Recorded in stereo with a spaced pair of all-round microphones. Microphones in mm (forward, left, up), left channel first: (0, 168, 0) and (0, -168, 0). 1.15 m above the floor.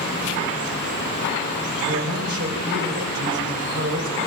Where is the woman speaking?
45° right (ahead or behind), 4 m.